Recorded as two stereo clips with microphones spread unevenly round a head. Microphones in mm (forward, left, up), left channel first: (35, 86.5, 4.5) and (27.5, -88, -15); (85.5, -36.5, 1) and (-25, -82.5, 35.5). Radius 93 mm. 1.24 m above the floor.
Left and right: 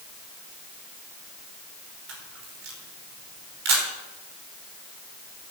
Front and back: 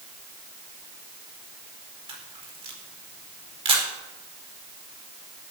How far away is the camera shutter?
About 5 m.